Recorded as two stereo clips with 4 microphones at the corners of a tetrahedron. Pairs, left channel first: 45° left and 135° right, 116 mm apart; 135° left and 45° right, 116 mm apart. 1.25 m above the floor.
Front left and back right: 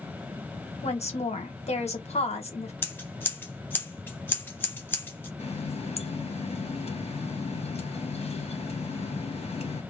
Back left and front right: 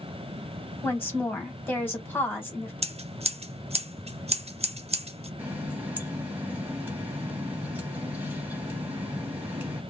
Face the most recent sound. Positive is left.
turn(degrees=30)